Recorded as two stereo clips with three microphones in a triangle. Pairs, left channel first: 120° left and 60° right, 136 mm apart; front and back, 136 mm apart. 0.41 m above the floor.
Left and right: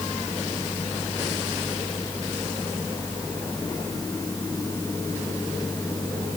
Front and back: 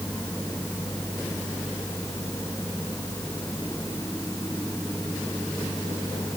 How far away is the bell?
No bell in this recording.